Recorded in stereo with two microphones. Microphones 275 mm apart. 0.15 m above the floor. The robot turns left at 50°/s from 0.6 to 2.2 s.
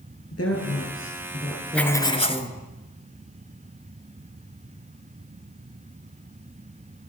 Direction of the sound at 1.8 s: 5° left (ahead or behind).